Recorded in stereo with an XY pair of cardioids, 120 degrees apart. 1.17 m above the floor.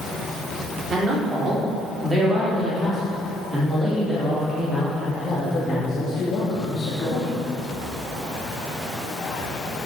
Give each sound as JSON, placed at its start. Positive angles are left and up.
{"t": 0.9, "sound": "a man speaking", "azimuth_deg": -35, "distance_m": 4.0}